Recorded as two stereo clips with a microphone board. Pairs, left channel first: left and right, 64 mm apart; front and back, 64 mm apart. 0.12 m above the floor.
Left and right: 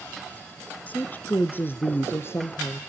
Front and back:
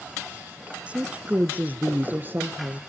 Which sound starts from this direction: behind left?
A woman speaking, at 0.9 s.